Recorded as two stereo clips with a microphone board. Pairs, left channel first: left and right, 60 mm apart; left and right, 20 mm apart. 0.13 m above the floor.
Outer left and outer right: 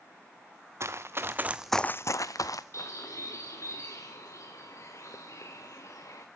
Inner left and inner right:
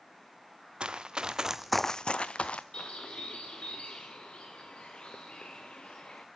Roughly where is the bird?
Left.